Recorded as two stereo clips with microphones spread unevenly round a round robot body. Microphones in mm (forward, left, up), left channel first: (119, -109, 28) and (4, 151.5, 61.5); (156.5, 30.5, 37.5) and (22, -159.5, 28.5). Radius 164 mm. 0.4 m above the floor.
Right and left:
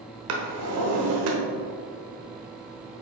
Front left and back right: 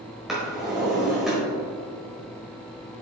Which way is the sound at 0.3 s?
145° left.